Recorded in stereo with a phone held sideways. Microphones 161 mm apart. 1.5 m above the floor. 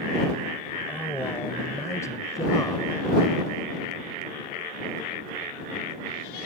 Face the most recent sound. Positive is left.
turn(degrees=25)  # may be behind; listen again after turning